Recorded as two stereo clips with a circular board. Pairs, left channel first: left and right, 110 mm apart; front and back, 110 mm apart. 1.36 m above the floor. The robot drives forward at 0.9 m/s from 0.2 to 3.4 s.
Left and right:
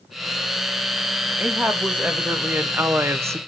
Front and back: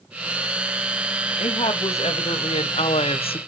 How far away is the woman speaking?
About 2.5 m.